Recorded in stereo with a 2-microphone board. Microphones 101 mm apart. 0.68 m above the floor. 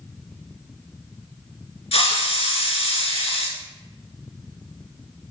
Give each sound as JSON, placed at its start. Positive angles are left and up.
{"t": 1.9, "sound": "a hiss", "side_deg": 75, "distance_m": 1.5}